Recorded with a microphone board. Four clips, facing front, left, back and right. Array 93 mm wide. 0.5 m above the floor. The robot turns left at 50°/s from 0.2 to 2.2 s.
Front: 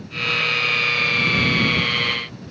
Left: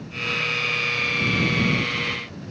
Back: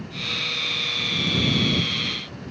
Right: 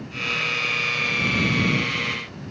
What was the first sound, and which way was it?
Only background noise.